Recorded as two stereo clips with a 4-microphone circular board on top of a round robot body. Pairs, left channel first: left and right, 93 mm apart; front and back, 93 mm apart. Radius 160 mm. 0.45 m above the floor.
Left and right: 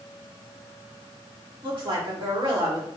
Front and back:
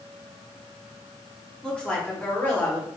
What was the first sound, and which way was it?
A woman speaking, 75° right.